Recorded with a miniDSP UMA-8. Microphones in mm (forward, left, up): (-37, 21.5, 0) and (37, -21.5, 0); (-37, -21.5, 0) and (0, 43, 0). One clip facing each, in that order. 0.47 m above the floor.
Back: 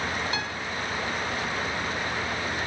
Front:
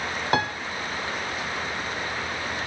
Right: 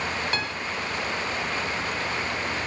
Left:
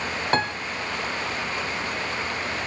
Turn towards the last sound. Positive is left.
turn(degrees=10)